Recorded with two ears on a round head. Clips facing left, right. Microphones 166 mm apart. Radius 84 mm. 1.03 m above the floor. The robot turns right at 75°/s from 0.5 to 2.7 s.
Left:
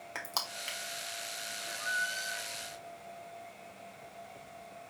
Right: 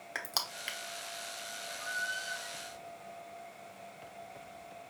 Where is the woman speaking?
No woman speaking in this recording.